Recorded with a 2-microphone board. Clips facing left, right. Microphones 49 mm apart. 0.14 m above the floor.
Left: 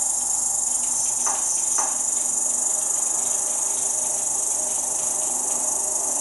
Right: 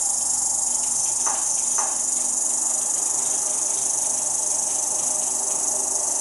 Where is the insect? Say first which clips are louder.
Even; 65° right (ahead or behind), 2.5 m.